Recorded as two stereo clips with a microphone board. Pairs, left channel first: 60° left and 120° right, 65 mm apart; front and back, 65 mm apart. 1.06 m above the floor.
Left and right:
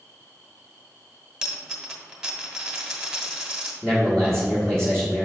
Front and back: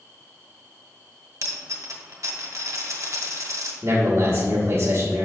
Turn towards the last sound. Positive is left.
turn(degrees=140)